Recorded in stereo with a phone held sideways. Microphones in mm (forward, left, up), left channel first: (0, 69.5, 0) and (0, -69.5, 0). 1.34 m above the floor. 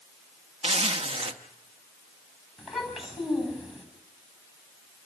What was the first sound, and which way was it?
A zipper, 45° right (ahead or behind).